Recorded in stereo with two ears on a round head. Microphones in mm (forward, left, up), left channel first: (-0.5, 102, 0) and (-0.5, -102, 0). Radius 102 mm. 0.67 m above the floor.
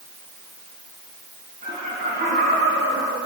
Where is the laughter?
35° right (ahead or behind), 8 m; by 3.2 s 45° right (ahead or behind), 6 m.